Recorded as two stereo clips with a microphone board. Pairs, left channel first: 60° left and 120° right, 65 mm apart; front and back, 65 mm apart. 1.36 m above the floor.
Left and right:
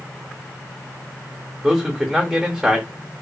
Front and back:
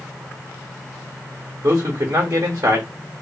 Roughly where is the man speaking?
Behind.